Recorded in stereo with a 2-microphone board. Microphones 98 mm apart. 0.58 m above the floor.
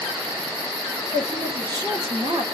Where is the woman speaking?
45° right (ahead or behind), 1.9 m.